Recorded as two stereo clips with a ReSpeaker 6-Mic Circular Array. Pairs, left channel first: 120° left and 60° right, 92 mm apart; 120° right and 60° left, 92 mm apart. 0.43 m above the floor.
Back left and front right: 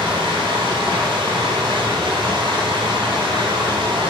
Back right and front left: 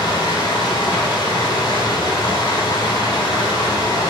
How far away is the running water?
About 2 m.